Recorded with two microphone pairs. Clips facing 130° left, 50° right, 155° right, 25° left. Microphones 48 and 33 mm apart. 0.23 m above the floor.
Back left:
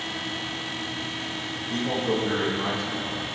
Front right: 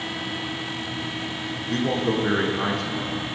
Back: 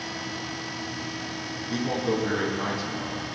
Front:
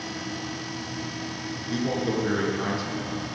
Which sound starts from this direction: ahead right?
A man speaking, at 1.7 s.